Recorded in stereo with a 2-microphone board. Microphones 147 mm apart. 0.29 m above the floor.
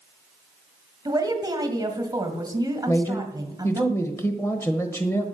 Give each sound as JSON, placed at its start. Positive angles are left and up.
{"t": 1.1, "sound": "a woman speaking", "side_deg": -25, "distance_m": 1.6}
{"t": 2.9, "sound": "a man speaking", "side_deg": 15, "distance_m": 1.0}